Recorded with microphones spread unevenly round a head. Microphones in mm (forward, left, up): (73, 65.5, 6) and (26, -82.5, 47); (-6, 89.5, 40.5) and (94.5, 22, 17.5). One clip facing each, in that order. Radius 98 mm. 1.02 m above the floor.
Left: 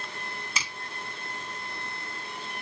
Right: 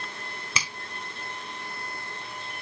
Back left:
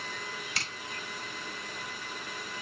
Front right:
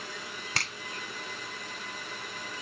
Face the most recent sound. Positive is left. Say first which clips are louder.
# right 4 dB, front right 7 dB
turn(degrees=-95)